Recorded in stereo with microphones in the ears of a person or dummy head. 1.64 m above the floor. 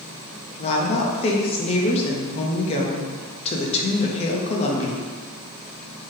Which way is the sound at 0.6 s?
35° left (ahead or behind).